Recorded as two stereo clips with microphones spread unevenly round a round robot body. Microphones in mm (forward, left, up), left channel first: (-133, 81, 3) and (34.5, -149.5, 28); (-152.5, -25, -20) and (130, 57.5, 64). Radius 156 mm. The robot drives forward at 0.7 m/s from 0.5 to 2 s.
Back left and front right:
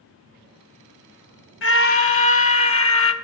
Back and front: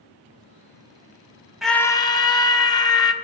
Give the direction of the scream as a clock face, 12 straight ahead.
8 o'clock.